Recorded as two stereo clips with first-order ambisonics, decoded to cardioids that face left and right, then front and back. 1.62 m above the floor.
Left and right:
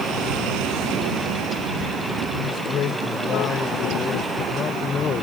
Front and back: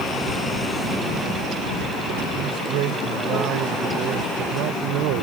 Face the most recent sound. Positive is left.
turn(degrees=155)